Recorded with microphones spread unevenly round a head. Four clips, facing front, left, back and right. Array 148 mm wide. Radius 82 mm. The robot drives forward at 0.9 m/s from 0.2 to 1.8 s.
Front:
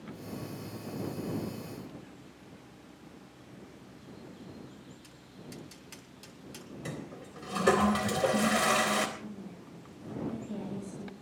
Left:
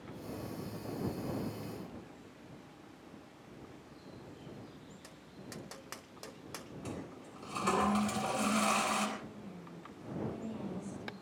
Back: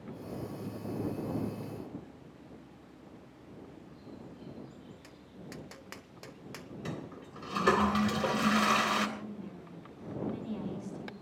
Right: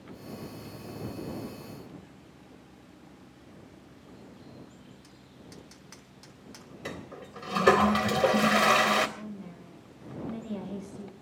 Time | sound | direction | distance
5.0 | tapping | 125° left | 1.0 m
6.8 | a toilet flushing | 80° right | 3 m
9.2 | a woman speaking | 95° right | 6.5 m